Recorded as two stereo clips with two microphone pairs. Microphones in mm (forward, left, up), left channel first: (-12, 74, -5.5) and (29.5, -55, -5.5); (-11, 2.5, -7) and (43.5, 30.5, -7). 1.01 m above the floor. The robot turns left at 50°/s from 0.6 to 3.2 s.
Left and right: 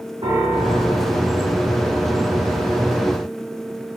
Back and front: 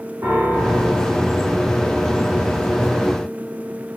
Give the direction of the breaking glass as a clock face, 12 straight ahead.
I don't hear breaking glass.